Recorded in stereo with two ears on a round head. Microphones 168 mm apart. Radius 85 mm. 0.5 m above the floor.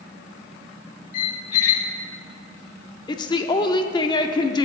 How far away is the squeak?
About 0.9 m.